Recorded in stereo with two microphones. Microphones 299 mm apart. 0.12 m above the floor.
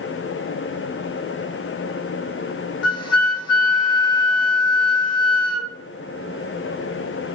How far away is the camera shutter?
I don't hear a camera shutter.